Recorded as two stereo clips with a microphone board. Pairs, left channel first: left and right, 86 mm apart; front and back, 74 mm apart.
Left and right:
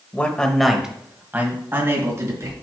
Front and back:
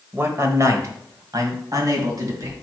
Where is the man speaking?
145° left, 1.0 m; by 2.5 s 145° right, 2.5 m.